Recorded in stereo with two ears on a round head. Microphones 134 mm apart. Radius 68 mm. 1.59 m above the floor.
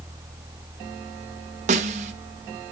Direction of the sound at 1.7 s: 45° right (ahead or behind).